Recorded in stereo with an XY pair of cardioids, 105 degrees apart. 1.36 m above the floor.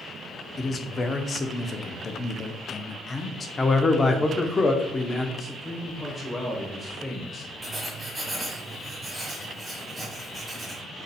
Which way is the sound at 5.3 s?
10° left.